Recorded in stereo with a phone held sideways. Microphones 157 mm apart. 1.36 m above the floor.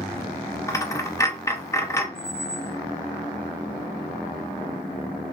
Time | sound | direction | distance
0.7 | a dropped coin | 20° left (ahead or behind) | 0.6 m
2.1 | a squeak | 10° left (ahead or behind) | 0.6 m